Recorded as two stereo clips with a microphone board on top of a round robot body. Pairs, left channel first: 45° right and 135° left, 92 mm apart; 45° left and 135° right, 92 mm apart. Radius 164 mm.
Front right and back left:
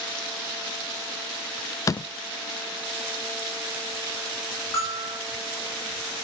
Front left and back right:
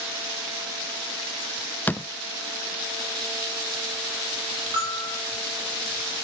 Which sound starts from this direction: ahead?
A door slam, at 1.9 s.